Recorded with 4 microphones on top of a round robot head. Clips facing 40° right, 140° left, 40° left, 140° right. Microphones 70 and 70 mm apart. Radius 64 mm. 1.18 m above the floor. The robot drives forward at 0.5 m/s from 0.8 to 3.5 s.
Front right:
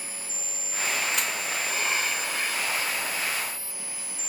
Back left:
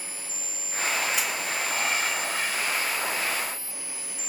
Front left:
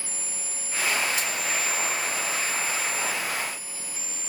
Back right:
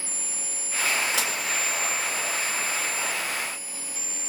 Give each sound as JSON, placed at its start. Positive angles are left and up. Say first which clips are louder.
{"t": 1.1, "sound": "dishes clattering", "louder": "back left 1 dB, back right 1 dB", "azimuth_deg": -130, "distance_m": 1.0}